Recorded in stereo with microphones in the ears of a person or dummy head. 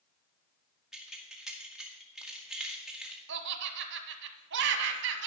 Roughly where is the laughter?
Right.